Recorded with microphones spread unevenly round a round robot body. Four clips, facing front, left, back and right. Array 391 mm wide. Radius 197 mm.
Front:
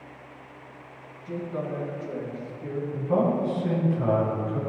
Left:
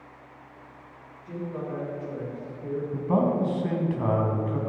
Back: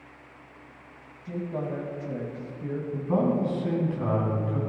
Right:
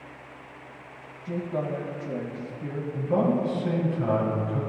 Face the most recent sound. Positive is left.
turn(degrees=105)